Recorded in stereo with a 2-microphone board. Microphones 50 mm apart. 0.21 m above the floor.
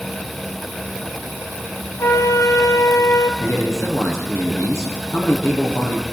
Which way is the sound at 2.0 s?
80° left.